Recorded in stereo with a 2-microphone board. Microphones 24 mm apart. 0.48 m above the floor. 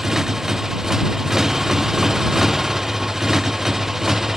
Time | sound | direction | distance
0.0 | a motorcycle | 15° right (ahead or behind) | ?